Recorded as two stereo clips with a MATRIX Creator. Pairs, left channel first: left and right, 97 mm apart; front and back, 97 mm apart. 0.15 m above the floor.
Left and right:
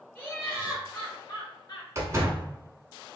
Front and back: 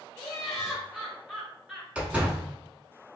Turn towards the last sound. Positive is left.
turn(degrees=-115)